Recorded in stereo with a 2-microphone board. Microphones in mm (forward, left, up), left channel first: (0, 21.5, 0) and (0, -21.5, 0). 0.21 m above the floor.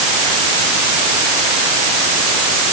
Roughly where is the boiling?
I don't hear boiling.